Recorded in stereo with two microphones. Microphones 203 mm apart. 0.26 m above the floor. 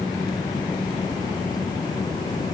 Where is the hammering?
No hammering in this recording.